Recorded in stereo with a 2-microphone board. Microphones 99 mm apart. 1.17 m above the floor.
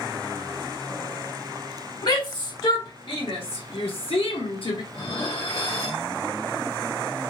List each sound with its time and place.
2.0 s a shout: 50° left (ahead or behind), 1.7 m; by 4.8 s 55° left (ahead or behind), 1.0 m
4.9 s dishes clattering: 60° left (ahead or behind), 1.5 m